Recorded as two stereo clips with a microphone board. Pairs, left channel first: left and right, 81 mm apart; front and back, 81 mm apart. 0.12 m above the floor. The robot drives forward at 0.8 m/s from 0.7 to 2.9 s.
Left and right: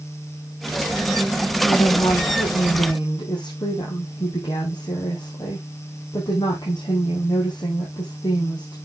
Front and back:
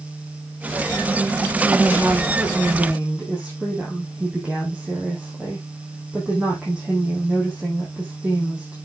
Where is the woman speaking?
90° left, 4.5 m; by 8.8 s 100° left, 4.5 m.